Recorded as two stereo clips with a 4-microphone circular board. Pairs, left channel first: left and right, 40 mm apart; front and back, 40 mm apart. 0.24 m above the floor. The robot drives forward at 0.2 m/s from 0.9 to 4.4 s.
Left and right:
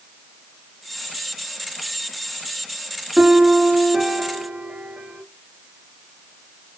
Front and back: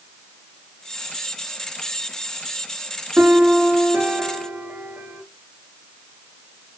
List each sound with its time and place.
3.2 s a piano: 145° right, 0.7 m; by 5.2 s 155° right, 0.9 m